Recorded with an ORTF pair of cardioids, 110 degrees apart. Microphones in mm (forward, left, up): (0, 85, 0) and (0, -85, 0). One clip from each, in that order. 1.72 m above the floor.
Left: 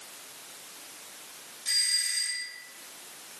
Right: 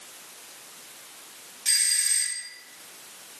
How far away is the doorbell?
About 1.3 m.